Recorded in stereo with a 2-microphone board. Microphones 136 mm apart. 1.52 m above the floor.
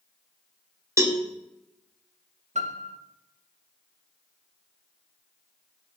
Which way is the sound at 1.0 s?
20° right (ahead or behind).